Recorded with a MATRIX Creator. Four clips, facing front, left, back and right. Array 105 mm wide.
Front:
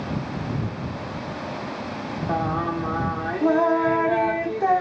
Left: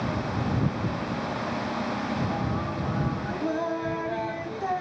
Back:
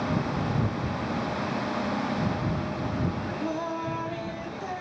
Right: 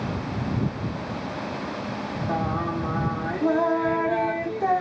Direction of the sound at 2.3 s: 20° right.